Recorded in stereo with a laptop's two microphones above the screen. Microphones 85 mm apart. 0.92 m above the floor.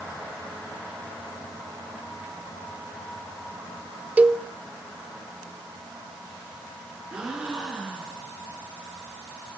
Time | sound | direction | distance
4.2 | a cowbell | 15° right (ahead or behind) | 0.8 m
7.1 | a gasp | 10° right (ahead or behind) | 8.5 m